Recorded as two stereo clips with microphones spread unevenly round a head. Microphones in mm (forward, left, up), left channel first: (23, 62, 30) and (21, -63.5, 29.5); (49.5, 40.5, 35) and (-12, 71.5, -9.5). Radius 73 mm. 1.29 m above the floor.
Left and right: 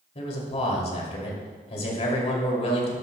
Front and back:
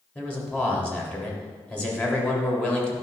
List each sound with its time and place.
0.1 s a man speaking: 50° left, 3 m